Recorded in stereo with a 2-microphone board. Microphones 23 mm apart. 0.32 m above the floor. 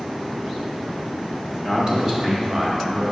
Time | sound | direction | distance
1.6 | a man speaking | 20° right (ahead or behind) | 1.4 m